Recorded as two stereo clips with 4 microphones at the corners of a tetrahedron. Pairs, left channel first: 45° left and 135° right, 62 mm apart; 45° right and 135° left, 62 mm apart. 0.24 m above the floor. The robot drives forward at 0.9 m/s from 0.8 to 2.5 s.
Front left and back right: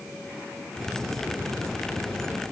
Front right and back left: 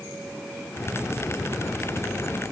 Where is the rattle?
I don't hear a rattle.